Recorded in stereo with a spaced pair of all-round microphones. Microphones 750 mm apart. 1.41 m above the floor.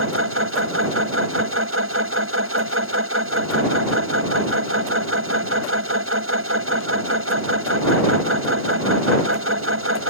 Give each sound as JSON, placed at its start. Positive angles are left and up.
{"t": 0.0, "sound": "a machine running", "side_deg": -15}